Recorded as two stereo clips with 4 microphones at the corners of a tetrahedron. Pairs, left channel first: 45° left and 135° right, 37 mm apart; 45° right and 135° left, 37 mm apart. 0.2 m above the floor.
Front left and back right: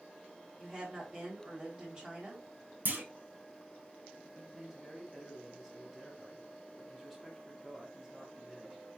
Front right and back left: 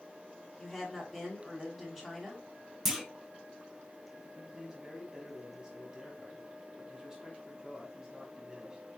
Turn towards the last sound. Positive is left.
turn(degrees=150)